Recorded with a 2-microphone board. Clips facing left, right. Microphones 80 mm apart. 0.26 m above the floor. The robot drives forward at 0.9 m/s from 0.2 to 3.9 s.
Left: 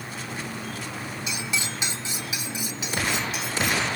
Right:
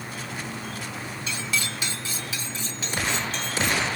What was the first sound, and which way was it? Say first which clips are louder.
Cutlery clinking: right 2 dB; 15° left (ahead or behind).